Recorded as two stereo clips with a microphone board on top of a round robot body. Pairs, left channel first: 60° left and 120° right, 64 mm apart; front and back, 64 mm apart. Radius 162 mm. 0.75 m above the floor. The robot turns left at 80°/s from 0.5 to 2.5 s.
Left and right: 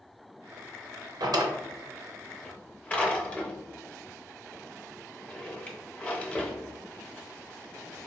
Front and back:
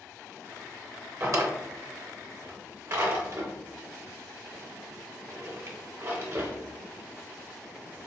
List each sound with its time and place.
1.2 s a drawer: 125° right, 0.7 m; by 8.1 s 130° left, 0.7 m